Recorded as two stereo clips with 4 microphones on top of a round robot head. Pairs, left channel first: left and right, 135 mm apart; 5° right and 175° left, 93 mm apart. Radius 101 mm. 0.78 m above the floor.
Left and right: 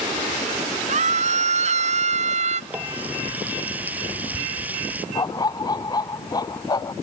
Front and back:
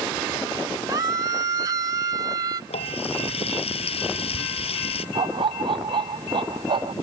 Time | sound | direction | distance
0.9 | a scream | 120° right | ?
2.7 | a running tap | 10° right | ?
5.2 | a dog barking | 150° left | ?